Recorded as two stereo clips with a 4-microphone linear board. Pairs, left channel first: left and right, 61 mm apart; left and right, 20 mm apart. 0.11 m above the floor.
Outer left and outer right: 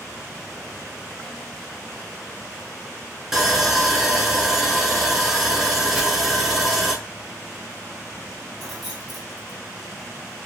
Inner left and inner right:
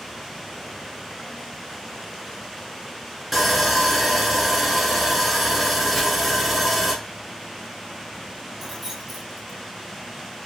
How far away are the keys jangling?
About 1.0 m.